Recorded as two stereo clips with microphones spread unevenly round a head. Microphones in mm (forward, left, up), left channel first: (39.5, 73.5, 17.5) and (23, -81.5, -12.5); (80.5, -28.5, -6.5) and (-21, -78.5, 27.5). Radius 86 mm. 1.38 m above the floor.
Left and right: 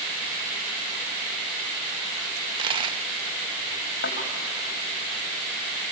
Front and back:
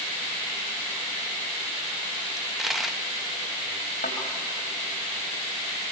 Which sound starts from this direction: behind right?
A dropped coin, at 2.4 s.